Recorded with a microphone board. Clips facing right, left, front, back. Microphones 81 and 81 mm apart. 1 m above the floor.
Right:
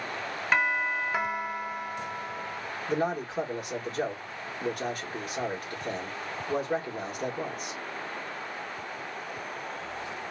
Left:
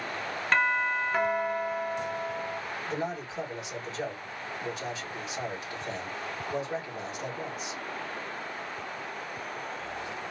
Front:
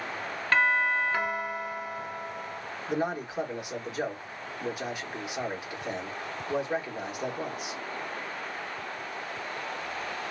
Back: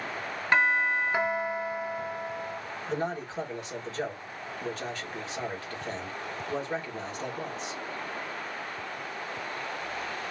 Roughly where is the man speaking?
Right.